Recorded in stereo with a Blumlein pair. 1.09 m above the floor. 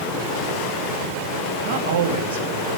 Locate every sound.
1.6 s a man speaking: 60° right, 1.4 m